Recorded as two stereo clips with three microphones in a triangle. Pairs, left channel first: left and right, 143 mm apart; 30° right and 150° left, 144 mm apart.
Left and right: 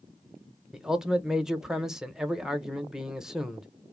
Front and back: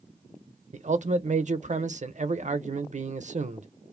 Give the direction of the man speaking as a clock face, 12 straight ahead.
6 o'clock.